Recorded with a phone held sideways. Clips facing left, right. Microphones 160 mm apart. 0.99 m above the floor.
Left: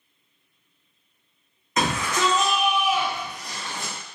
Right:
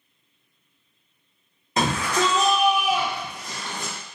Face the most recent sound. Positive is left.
turn(degrees=-10)  # may be behind; listen again after turning